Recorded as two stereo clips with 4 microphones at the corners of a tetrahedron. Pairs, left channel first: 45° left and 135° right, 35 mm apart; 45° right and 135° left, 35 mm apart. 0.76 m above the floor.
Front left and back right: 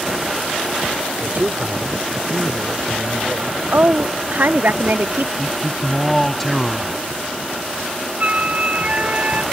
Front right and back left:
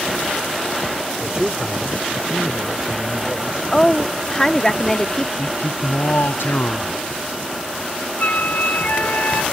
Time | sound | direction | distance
1.2 | a man speaking | 170° right | ?
3.7 | a woman speaking | 115° right | ?
5.4 | a man speaking | 40° right | ?
8.2 | a flute | 85° right | ?